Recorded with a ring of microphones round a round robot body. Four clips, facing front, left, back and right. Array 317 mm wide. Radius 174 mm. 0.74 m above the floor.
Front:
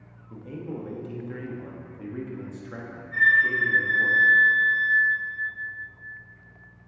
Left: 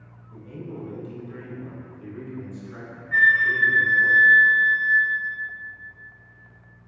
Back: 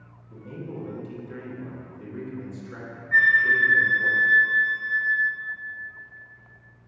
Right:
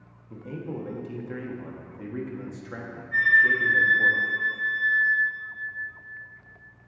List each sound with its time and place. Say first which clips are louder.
0.3 s a man speaking: right 2 dB, front 2 dB; 65° right, 1.6 m
3.1 s a flute: left 2 dB, back 2 dB; 140° left, 1.0 m